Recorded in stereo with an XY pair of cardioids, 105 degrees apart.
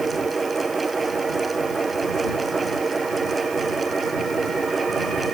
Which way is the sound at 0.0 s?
20° right.